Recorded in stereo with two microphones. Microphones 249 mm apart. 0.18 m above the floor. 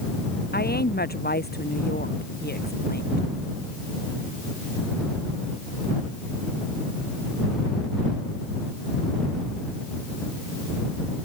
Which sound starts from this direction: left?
A woman speaking, at 0.5 s.